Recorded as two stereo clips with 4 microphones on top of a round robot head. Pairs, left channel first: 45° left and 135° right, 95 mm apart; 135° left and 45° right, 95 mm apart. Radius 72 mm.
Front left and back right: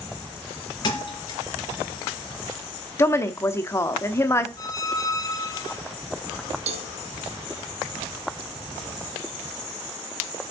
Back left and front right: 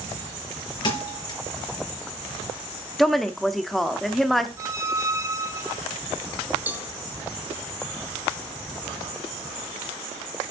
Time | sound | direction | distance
0.8 | a thud | 90° left | 3.5 m
3.0 | a woman speaking | 50° left | 0.9 m
4.6 | a squeak | 5° left | 1.0 m
6.7 | a cowbell | 120° right | 1.0 m